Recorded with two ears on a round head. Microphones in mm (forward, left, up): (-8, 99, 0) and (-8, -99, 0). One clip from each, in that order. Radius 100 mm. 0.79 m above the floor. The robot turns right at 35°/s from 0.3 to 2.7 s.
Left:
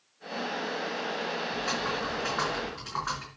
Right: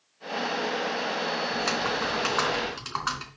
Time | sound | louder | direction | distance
1.5 | typing on a keyboard | right 3 dB | 105° right | 3.5 m